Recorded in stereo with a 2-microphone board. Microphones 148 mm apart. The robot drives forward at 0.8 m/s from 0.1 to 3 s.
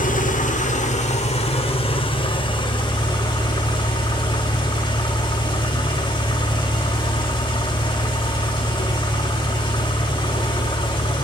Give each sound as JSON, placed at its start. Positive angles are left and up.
{"t": 0.0, "sound": "an engine running", "side_deg": 60, "distance_m": 1.8}